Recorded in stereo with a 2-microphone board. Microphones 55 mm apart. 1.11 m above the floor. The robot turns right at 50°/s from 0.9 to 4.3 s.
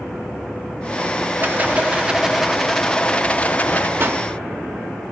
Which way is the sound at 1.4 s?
55° right.